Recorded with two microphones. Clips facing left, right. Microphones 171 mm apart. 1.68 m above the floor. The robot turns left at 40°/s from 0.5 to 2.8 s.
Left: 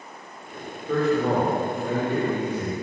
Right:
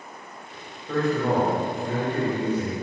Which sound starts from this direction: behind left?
A man speaking, at 0.9 s.